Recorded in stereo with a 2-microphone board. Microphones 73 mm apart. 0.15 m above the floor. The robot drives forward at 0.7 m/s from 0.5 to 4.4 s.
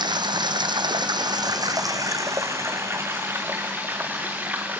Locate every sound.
0.0 s running water: 80° right, 1.1 m; by 4.8 s 25° right (ahead or behind), 3 m